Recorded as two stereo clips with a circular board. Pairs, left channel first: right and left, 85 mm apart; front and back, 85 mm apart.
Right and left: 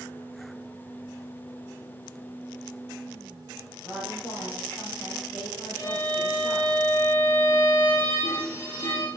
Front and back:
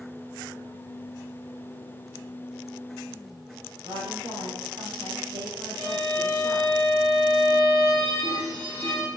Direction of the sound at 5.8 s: 150° right.